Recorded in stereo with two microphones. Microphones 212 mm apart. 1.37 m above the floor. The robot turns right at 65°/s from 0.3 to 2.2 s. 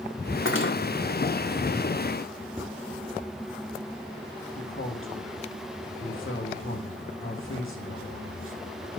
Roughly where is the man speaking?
Left.